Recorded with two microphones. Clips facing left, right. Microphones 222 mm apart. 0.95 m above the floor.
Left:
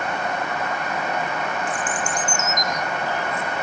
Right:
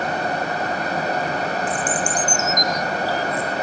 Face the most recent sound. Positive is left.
turn(degrees=-35)  # may be behind; listen again after turning